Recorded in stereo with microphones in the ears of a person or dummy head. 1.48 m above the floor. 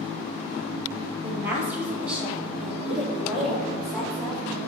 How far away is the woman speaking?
About 1.6 m.